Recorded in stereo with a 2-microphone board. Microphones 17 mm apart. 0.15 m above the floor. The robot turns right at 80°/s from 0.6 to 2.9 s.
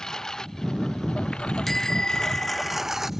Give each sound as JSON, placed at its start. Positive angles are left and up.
{"t": 0.0, "sound": "a lawn mower", "side_deg": 35}
{"t": 1.7, "sound": "a bicycle bell", "azimuth_deg": 10}